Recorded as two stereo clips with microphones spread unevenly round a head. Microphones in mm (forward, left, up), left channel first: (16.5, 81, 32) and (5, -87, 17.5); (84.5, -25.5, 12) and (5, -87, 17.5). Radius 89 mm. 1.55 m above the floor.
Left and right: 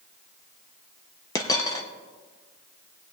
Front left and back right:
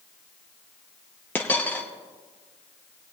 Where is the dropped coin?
100° left, 0.8 m.